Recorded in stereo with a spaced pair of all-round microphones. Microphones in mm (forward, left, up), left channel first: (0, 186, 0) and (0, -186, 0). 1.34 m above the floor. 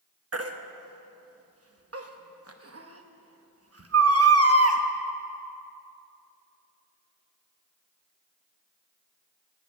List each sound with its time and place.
0.3 s a baby crying: 40° right (ahead or behind), 0.9 m